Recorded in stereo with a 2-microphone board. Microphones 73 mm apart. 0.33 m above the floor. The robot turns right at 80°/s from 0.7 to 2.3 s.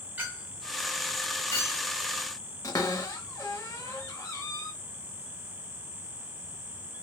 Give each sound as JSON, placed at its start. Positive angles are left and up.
{"t": 0.2, "sound": "a clink", "side_deg": -25, "distance_m": 1.4}
{"t": 2.6, "sound": "a cupboard door", "side_deg": 45, "distance_m": 0.6}